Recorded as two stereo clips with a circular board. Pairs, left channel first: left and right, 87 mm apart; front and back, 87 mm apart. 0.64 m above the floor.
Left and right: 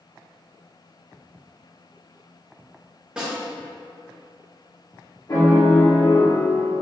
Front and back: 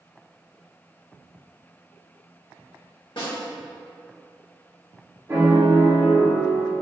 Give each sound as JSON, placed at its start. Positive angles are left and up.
{"t": 3.2, "sound": "a snare drum", "azimuth_deg": -10, "distance_m": 1.5}
{"t": 5.3, "sound": "a piano", "azimuth_deg": 120, "distance_m": 1.1}